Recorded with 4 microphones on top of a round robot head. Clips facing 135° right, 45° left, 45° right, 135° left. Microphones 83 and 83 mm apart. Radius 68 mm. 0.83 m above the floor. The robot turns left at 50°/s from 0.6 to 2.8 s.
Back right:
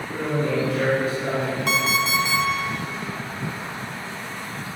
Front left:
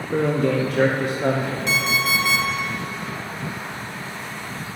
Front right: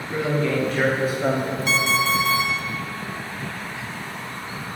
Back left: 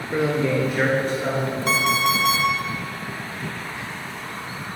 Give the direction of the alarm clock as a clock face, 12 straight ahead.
6 o'clock.